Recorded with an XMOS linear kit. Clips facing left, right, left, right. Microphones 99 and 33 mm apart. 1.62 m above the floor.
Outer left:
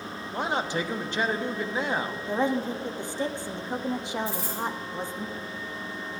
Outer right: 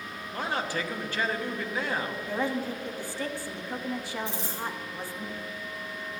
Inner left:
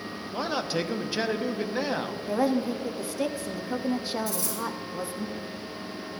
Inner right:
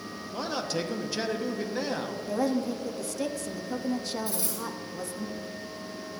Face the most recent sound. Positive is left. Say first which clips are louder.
# outer left 3 dB, inner left 2 dB
turn(degrees=-25)  # may be behind; listen again after turning